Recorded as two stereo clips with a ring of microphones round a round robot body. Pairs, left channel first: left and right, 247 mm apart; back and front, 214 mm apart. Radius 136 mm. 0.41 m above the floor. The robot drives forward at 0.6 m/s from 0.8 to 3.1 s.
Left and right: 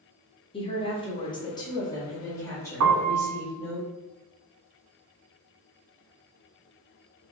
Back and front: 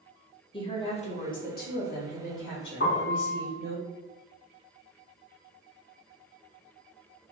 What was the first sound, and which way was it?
A woman speaking, 140° left.